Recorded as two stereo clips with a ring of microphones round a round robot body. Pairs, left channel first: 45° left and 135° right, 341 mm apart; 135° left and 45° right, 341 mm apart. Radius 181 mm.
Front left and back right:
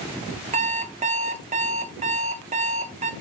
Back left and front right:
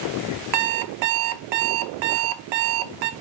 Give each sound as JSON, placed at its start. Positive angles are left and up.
{"t": 0.5, "sound": "an alarm clock", "azimuth_deg": -65, "distance_m": 0.7}